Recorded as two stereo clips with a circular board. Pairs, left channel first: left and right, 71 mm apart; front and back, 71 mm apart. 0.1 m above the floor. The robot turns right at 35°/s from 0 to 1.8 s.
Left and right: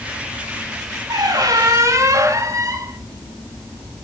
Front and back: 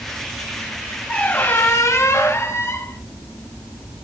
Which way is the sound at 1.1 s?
75° right.